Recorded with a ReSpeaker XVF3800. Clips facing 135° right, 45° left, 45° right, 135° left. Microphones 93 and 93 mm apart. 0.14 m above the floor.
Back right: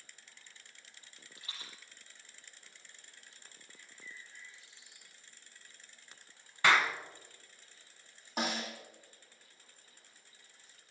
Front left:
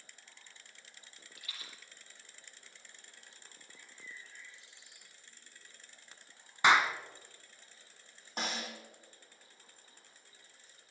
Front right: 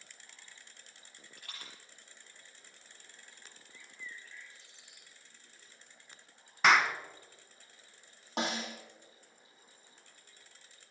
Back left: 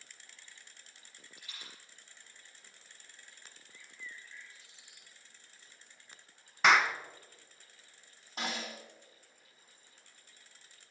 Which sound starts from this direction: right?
A rattle, at 1.4 s.